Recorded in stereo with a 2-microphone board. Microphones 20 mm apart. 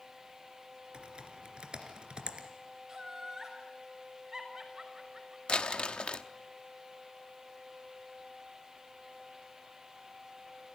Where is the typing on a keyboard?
50° right (ahead or behind), 2.5 m.